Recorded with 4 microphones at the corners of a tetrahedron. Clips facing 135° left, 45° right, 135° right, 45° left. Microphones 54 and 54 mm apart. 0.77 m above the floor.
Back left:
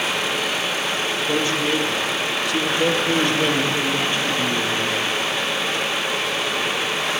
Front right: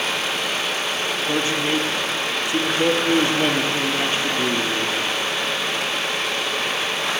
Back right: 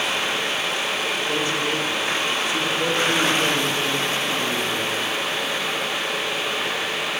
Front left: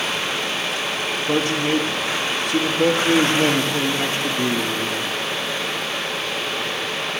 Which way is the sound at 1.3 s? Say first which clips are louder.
Even, front left 7 dB; 15° left.